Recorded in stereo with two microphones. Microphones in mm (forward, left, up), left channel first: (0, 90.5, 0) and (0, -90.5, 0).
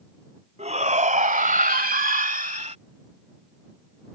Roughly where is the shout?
Right.